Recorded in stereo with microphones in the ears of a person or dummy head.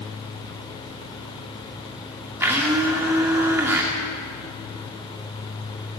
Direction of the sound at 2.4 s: 15° right (ahead or behind).